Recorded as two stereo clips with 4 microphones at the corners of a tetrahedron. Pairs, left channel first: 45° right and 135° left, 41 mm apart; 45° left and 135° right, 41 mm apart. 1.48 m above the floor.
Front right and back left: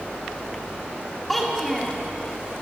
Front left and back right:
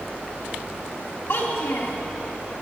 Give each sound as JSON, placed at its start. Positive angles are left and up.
{"t": 1.3, "sound": "a child speaking", "azimuth_deg": 45, "distance_m": 2.0}